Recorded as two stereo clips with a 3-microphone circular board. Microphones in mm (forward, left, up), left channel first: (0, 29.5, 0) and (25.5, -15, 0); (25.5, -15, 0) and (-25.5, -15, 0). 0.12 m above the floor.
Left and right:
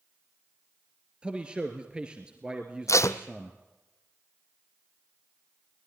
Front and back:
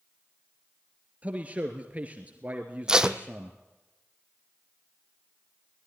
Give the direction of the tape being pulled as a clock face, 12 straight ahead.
9 o'clock.